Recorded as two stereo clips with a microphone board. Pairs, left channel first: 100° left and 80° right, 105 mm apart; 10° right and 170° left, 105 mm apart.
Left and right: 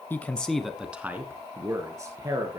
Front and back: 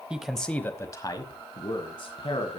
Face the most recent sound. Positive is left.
turn(degrees=-25)